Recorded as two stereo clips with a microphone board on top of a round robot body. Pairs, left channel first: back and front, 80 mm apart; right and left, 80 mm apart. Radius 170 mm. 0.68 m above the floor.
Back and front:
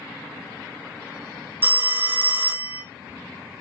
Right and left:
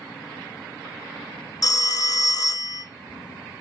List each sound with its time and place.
1.6 s a phone ringing: 60° right, 0.8 m